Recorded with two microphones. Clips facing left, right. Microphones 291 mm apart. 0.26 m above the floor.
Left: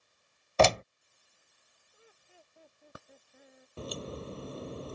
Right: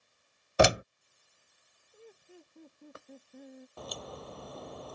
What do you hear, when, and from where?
0.6 s a door slam: 15° right (ahead or behind)
1.9 s laughter: 50° right (ahead or behind)
3.8 s a crack: 30° left (ahead or behind)